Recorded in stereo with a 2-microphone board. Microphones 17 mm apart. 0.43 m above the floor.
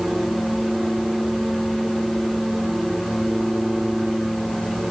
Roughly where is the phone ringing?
No phone ringing in this recording.